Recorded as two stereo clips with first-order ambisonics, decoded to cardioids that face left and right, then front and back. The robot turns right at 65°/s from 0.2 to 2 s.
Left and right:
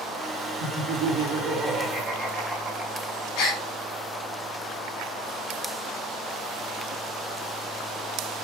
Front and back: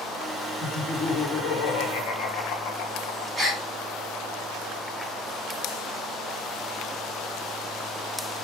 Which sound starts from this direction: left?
A gasp, at 3.4 s.